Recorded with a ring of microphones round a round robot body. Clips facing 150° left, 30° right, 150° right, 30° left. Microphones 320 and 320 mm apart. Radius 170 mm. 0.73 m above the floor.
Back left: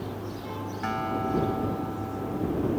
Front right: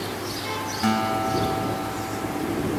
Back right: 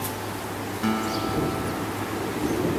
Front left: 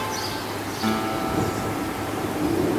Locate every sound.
0.8 s a guitar: 60° right